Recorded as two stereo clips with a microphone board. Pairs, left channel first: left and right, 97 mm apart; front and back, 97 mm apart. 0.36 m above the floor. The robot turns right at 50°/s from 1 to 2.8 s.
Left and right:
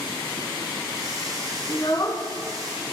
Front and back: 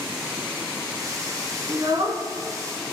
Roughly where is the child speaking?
Behind left.